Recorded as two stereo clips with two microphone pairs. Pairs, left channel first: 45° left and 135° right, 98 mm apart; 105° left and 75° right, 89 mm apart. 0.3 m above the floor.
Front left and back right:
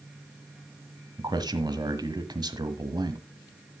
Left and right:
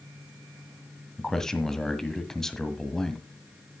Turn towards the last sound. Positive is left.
turn(degrees=-175)